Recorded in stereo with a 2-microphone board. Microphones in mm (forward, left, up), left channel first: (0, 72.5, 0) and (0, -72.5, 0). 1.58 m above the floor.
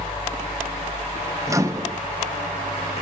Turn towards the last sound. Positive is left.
turn(degrees=-20)  # may be behind; listen again after turning